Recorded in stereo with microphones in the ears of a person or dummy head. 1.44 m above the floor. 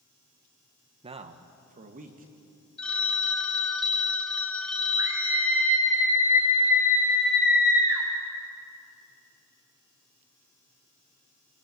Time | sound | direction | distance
1.0 | a man speaking | 35° right (ahead or behind) | 1.3 m
2.8 | a phone ringing | 5° left (ahead or behind) | 1.1 m
5.0 | a scream | 20° right (ahead or behind) | 9 m